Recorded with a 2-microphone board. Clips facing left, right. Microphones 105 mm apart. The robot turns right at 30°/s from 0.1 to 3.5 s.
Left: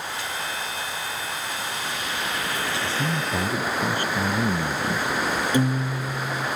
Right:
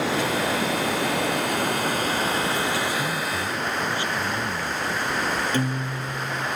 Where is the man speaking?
25° left (ahead or behind); by 5.1 s 40° left (ahead or behind).